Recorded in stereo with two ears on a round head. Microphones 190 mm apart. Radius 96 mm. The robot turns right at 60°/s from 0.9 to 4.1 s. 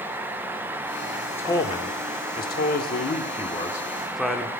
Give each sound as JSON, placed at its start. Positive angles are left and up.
{"t": 1.3, "sound": "a man speaking", "side_deg": 10, "distance_m": 0.9}